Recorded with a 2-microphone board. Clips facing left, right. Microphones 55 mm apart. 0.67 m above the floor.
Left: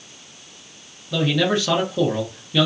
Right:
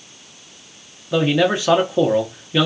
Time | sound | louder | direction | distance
1.1 | a man speaking | right 3 dB | 20° right (ahead or behind) | 0.6 m